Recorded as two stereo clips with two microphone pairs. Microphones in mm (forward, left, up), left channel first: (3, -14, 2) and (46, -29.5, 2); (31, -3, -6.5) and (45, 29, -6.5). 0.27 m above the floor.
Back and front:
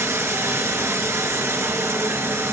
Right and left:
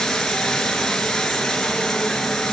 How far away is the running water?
About 2.5 m.